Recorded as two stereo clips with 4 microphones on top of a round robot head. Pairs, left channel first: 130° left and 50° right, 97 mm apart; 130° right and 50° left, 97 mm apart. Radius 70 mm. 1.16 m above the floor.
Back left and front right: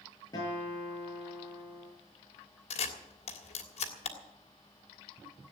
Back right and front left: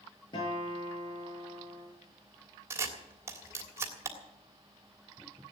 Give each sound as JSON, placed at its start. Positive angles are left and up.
{"t": 0.3, "sound": "a guitar", "azimuth_deg": -175, "distance_m": 8.5}
{"t": 2.7, "sound": "a camera shutter", "azimuth_deg": 115, "distance_m": 3.0}